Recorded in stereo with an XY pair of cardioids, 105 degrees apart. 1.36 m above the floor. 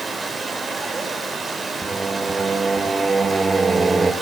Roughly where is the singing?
Ahead right.